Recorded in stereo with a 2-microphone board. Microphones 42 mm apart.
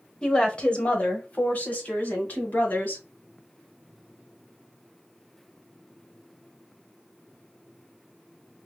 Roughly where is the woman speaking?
Left.